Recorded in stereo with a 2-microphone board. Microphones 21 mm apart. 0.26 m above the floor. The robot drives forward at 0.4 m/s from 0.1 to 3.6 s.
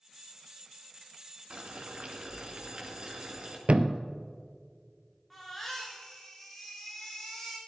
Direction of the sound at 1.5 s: 55° right (ahead or behind).